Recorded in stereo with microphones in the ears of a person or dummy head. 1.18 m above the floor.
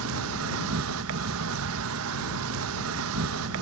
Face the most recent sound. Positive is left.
turn(degrees=-80)